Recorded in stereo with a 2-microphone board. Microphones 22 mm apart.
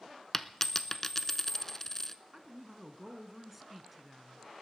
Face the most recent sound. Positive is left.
turn(degrees=-5)  # may be behind; listen again after turning